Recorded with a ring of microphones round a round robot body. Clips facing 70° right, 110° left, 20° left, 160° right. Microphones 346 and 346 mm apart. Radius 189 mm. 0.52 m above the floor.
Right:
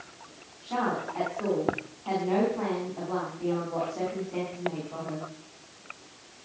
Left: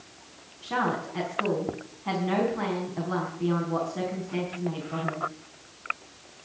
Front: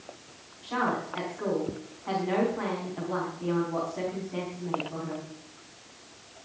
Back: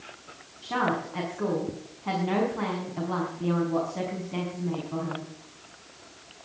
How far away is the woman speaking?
About 4.5 m.